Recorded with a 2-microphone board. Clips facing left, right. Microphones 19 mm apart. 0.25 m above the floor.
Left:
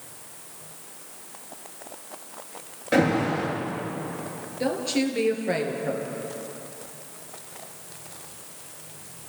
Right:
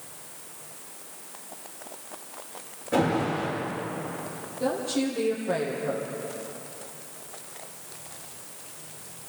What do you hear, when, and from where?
2.9 s an alarm: 70° left (ahead or behind), 5.5 m
4.6 s a woman speaking: 45° left (ahead or behind), 4.5 m